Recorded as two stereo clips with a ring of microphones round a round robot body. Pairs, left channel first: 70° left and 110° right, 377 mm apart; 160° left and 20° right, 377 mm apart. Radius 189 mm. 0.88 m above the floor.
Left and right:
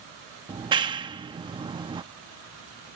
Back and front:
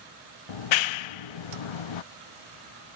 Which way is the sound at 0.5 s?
170° left.